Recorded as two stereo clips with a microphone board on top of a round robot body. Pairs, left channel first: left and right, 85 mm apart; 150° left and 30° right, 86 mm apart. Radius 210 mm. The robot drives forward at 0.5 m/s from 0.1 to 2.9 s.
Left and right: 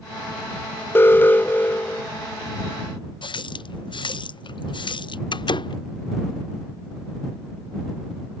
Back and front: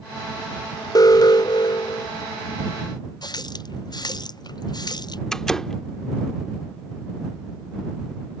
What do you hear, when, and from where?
0.9 s an alarm: 145° left; by 2.1 s 160° left
3.2 s a running tap: 115° left
5.3 s a door slam: 65° left